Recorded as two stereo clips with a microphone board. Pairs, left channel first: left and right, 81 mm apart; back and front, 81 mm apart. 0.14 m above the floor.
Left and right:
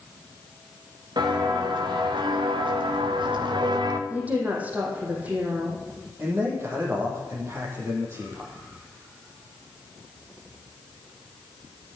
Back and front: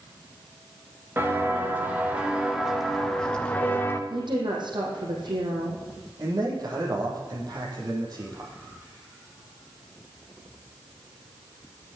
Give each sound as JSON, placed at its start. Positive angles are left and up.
{"t": 1.2, "sound": "footsteps", "azimuth_deg": -65, "distance_m": 4.0}
{"t": 4.1, "sound": "a woman speaking", "azimuth_deg": -20, "distance_m": 5.5}
{"t": 6.2, "sound": "a man speaking", "azimuth_deg": -35, "distance_m": 6.0}